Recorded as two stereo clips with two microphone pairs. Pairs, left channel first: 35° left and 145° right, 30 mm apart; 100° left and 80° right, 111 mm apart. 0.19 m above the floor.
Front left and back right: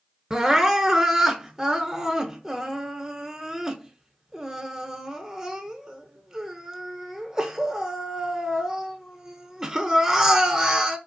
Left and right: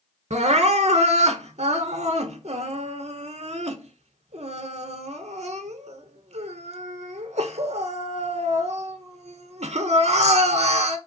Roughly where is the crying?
Right.